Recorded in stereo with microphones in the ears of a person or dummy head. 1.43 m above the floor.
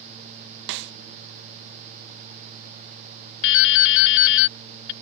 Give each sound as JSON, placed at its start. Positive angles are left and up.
{"t": 0.7, "sound": "a snare drum", "side_deg": -60}
{"t": 3.4, "sound": "dripping", "side_deg": 65}